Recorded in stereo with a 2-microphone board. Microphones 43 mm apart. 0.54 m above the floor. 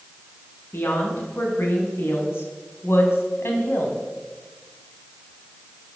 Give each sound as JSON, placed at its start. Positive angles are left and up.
{"t": 0.7, "sound": "a woman speaking", "side_deg": 60, "distance_m": 5.5}